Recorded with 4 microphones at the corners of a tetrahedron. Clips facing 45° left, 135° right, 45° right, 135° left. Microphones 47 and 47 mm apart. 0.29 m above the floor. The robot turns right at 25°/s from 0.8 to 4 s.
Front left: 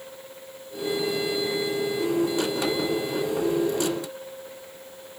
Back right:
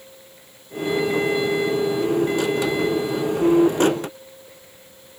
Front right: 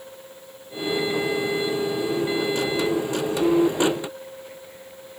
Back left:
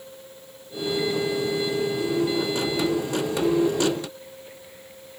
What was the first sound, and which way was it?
Only background noise.